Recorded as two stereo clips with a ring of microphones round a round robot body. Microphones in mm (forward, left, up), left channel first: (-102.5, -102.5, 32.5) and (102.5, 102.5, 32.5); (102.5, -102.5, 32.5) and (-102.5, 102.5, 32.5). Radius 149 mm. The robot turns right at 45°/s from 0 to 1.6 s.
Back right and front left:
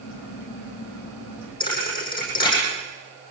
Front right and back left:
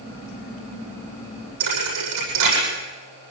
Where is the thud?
150° left, 9 m.